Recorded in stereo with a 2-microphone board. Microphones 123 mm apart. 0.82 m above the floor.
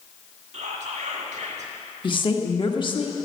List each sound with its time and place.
0.5 s whispering: 65° right (ahead or behind), 1.5 m
2.0 s a woman speaking: 40° left (ahead or behind), 1.0 m